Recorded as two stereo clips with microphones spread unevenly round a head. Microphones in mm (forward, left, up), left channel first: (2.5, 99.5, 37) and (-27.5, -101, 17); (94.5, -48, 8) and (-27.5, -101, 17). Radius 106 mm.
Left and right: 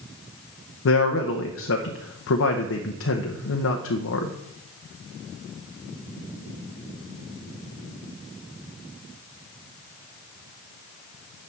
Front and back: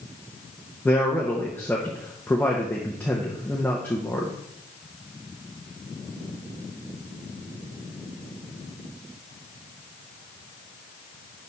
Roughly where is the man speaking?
Left.